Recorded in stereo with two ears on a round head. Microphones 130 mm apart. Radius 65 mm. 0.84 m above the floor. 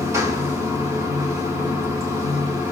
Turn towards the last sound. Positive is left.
turn(degrees=-25)  # may be behind; listen again after turning